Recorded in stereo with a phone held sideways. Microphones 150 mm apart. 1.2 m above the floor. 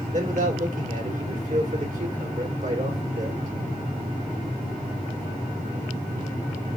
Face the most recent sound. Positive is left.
turn(degrees=-55)  # may be behind; listen again after turning